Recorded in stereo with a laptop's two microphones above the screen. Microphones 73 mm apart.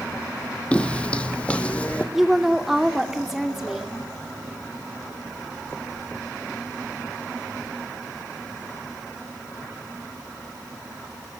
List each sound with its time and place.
0.7 s footsteps: 15° left (ahead or behind), 2 m; by 2.0 s 20° left (ahead or behind), 3 m
2.1 s a woman speaking: 5° right (ahead or behind), 3 m